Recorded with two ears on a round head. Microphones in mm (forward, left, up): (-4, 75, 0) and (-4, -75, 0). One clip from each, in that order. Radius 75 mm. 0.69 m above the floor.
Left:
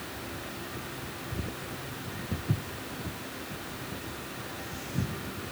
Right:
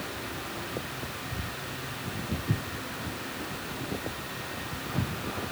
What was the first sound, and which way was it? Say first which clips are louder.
Footsteps: right 1 dB; 30° left (ahead or behind).